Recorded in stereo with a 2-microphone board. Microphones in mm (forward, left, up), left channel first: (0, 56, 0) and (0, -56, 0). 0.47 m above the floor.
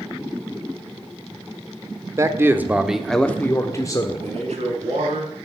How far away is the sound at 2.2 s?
About 1.5 m.